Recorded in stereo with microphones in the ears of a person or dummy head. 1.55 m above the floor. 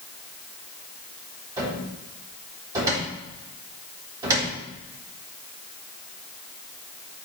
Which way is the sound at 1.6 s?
20° right (ahead or behind).